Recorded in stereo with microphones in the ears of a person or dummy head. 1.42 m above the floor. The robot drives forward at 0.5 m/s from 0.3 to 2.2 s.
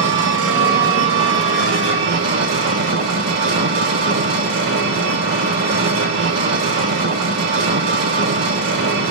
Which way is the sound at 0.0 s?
65° right (ahead or behind).